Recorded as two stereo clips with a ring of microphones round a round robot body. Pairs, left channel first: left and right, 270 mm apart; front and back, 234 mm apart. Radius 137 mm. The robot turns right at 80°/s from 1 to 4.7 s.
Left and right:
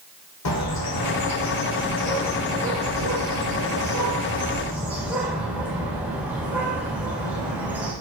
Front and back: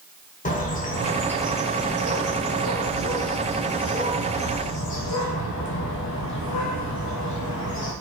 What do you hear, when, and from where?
0.5 s a bird: 60° left, 1.8 m; by 7.9 s 5° right, 1.8 m